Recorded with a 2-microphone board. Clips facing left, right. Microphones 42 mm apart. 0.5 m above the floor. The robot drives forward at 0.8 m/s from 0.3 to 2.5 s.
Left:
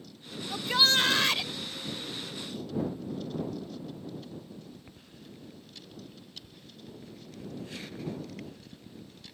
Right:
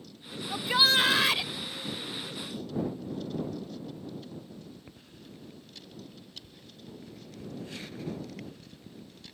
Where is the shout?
10° right (ahead or behind); by 1.5 s 5° right (ahead or behind).